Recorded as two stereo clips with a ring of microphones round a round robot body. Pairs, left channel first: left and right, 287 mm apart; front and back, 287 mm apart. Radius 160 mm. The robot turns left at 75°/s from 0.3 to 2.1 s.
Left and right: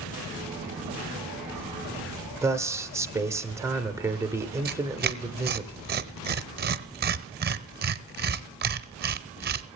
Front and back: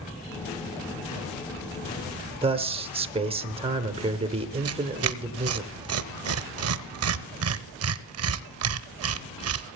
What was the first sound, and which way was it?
A man speaking, 155° right.